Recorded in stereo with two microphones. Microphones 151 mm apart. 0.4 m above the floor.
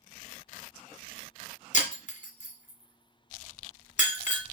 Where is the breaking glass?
55° left (ahead or behind), 1.7 m.